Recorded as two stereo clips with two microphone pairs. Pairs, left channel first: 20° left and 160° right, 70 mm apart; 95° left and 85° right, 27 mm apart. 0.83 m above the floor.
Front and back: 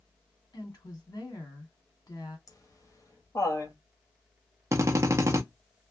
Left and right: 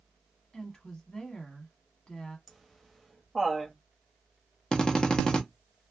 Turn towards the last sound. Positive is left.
turn(degrees=160)